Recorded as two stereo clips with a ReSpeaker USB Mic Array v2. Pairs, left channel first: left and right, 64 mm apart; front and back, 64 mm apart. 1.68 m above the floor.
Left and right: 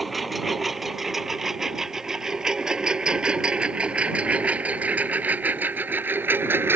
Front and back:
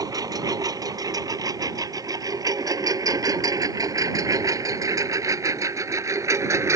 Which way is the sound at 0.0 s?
Straight behind.